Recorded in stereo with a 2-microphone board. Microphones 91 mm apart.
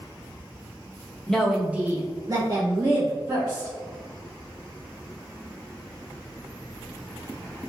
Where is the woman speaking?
5° left (ahead or behind), 0.6 m; by 3.7 s 45° right (ahead or behind), 1.3 m.